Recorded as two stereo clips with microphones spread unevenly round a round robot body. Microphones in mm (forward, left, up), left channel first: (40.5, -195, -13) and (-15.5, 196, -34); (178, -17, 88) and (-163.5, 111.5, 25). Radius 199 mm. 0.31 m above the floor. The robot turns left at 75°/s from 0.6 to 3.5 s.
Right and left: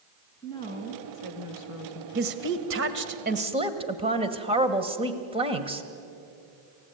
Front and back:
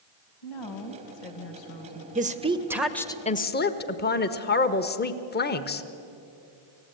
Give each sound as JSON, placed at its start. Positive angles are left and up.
{"t": 0.4, "sound": "a woman speaking", "azimuth_deg": -5, "distance_m": 2.5}
{"t": 2.1, "sound": "a woman speaking", "azimuth_deg": 140, "distance_m": 1.2}